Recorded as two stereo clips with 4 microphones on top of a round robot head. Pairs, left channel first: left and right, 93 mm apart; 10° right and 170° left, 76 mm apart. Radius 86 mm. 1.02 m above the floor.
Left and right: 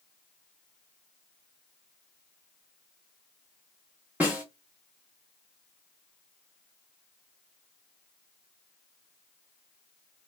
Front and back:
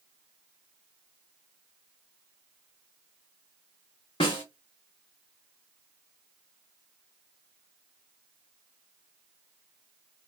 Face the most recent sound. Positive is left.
turn(degrees=-15)